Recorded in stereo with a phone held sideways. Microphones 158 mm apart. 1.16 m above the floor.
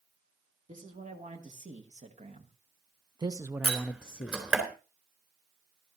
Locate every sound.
0.7 s a man speaking: 55° right (ahead or behind), 2.5 m; by 4.4 s 60° left (ahead or behind), 0.6 m
3.6 s a door slam: 10° right (ahead or behind), 3.5 m